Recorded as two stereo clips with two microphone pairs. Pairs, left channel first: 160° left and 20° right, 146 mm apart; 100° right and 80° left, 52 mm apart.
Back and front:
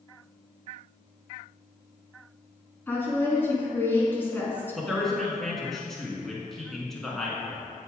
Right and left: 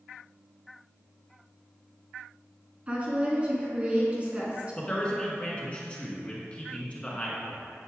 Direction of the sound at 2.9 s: 105° left.